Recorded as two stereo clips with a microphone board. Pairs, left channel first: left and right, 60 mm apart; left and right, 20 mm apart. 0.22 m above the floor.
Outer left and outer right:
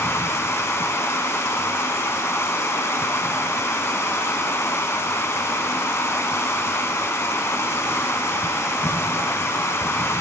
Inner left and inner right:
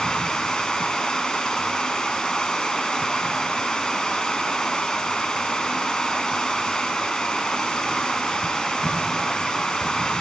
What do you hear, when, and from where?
0.0 s running water: 50° left (ahead or behind), 0.7 m